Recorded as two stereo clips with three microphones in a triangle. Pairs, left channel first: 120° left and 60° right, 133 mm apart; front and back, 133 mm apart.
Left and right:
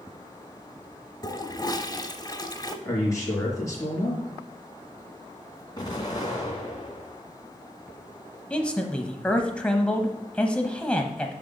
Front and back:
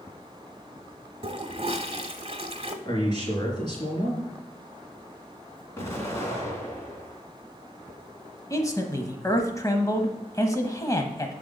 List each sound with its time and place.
1.2 s a toilet flushing: 165° left, 1.0 m
2.9 s a man speaking: 55° left, 4 m
5.8 s an explosion: 65° left, 2.5 m
8.5 s a man speaking: 45° left, 1.1 m